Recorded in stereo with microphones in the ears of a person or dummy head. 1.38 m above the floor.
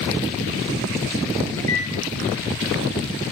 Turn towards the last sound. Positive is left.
turn(degrees=20)  # may be behind; listen again after turning